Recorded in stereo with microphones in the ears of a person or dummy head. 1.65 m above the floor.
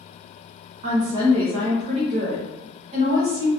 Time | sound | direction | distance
0.8 | a woman speaking | 40° right (ahead or behind) | 0.6 m